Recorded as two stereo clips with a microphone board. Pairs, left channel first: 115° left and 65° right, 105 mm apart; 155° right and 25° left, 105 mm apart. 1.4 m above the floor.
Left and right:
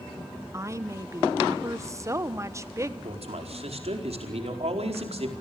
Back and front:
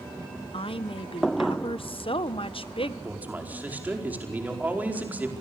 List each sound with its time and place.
0.5 s a woman speaking: 130° right, 1.1 m
3.0 s a man speaking: 55° right, 4.5 m